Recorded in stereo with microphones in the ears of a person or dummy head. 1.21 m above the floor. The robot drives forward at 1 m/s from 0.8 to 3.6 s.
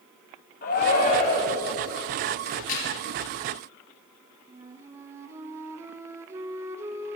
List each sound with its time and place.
0.6 s a shout: 50° left (ahead or behind), 2.5 m; by 1.7 s 35° left (ahead or behind), 3 m
2.5 s a crack: 50° left (ahead or behind), 4.5 m
4.5 s a flute: 20° right (ahead or behind), 0.8 m